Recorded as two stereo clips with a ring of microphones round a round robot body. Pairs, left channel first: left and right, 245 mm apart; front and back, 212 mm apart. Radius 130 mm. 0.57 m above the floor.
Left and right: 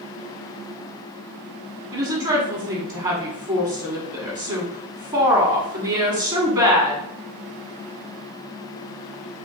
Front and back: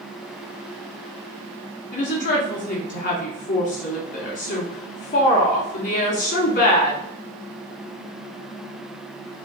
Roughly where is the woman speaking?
Ahead right.